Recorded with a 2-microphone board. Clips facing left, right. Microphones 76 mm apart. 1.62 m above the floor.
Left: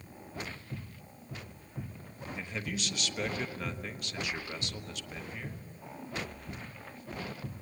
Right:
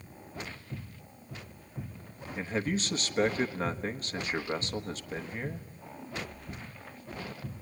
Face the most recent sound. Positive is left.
turn(degrees=-40)  # may be behind; listen again after turning